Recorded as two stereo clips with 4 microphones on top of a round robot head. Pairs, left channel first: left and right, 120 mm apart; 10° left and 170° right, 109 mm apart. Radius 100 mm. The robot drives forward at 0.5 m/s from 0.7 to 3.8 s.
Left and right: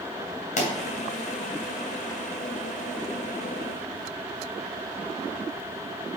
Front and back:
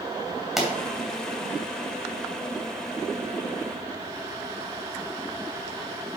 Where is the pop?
100° left, 2.5 m.